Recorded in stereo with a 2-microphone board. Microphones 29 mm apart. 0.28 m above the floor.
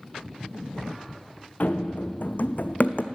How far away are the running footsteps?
About 0.9 m.